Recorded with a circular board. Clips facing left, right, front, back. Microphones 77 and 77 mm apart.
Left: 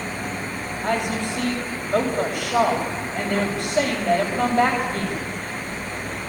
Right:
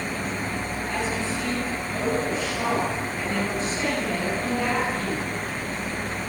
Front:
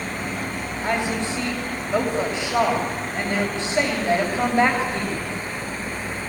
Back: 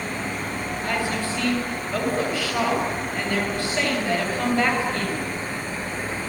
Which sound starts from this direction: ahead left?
A woman speaking, at 0.8 s.